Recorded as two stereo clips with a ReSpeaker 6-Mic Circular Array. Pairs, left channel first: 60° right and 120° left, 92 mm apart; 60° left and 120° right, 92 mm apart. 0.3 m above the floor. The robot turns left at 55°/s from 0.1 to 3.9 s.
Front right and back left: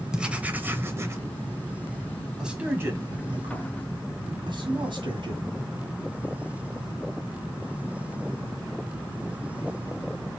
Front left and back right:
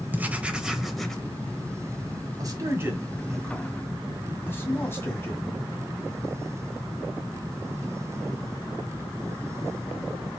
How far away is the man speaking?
About 1.7 m.